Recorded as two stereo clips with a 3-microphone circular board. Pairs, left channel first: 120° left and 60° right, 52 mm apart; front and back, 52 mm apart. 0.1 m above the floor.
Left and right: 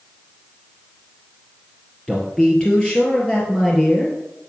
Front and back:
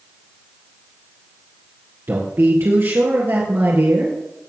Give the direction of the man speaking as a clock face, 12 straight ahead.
6 o'clock.